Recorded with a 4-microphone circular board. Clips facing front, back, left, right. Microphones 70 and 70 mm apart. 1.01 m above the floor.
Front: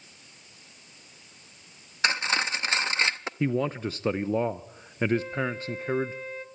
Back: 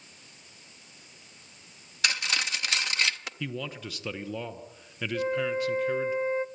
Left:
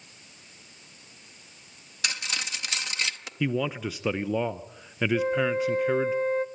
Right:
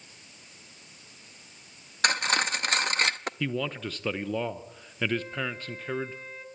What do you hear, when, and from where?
2.0 s cutlery clinking: 55° right, 0.5 m
3.4 s a man speaking: 20° left, 0.7 m
5.1 s a flute: 125° left, 0.7 m